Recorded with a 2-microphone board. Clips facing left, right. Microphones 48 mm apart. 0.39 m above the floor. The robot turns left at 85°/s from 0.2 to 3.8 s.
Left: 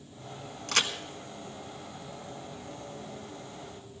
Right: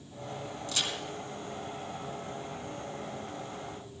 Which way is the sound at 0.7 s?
75° left (ahead or behind).